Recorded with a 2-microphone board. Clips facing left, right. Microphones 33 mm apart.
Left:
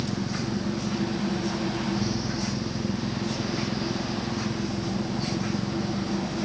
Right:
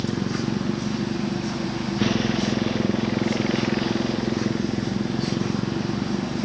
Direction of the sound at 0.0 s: 65° right (ahead or behind).